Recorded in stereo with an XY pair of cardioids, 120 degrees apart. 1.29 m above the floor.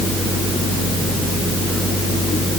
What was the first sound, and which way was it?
Only background noise.